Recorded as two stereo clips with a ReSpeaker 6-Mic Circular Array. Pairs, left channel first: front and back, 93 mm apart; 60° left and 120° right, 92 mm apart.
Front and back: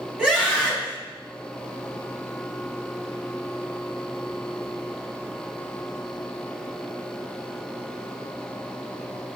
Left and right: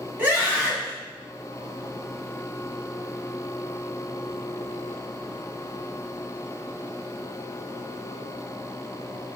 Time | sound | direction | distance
0.2 | a scream | 120° right | 1.6 m